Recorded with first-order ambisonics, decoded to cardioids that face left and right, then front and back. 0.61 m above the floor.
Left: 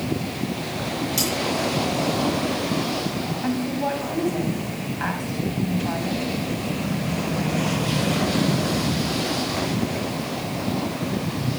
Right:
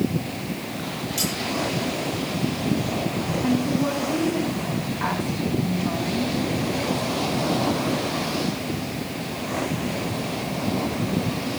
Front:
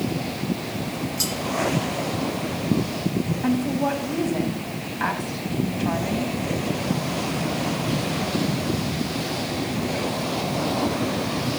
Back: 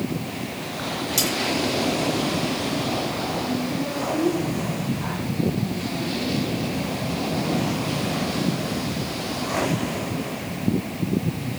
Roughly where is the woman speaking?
Ahead left.